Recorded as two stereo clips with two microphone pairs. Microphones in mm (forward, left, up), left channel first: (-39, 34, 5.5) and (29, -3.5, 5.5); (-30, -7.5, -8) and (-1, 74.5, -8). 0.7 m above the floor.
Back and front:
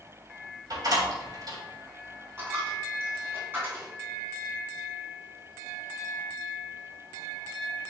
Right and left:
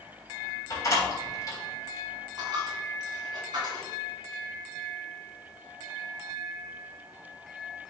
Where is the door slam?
60° right, 3 m.